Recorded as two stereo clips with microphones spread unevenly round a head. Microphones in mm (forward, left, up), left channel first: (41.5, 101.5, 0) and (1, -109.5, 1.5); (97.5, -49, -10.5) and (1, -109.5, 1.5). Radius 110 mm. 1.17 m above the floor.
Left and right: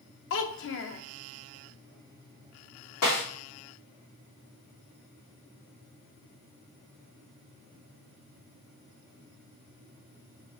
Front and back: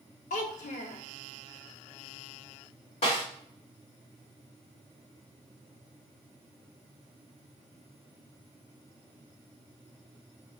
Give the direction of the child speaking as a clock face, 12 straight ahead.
10 o'clock.